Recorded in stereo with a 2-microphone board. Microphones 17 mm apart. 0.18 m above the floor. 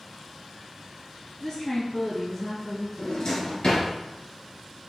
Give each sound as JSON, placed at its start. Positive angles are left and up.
{"t": 1.4, "sound": "a woman speaking", "side_deg": 45, "distance_m": 1.4}
{"t": 3.0, "sound": "a drawer", "side_deg": 65, "distance_m": 2.0}